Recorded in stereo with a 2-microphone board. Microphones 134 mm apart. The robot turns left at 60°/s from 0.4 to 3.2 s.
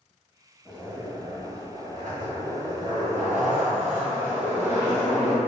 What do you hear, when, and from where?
0.7 s a zipper: 10° right, 1.0 m; by 5.4 s 160° right, 1.0 m